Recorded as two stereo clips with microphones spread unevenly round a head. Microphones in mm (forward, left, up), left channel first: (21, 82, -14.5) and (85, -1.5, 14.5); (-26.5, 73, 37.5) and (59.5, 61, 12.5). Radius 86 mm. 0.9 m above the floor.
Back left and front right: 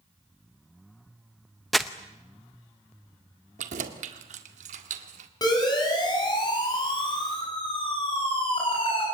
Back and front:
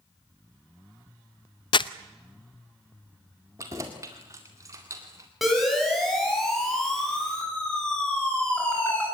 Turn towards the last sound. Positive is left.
turn(degrees=95)